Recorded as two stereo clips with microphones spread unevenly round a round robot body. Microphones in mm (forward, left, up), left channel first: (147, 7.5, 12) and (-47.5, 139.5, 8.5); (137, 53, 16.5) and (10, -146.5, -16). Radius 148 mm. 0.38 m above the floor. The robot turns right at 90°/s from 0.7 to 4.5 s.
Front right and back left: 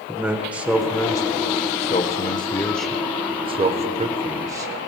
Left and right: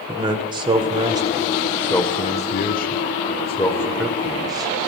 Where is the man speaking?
135° right, 1.1 m; by 4.7 s 155° right, 1.1 m.